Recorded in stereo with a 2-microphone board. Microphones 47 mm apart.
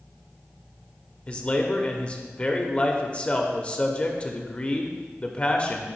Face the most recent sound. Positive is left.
turn(degrees=25)  # may be behind; listen again after turning